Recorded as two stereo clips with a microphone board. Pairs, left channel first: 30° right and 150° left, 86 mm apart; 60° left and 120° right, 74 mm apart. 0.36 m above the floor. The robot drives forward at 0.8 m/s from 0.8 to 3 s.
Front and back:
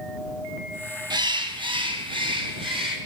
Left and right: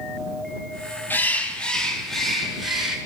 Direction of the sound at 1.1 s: 125° left.